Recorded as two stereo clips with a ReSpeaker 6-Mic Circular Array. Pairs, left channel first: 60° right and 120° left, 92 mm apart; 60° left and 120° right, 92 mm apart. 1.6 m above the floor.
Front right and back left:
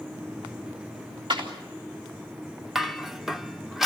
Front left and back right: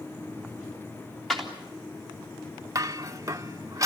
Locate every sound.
1.3 s a clap: 145° left, 3.5 m
2.8 s dishes clattering: 155° right, 0.8 m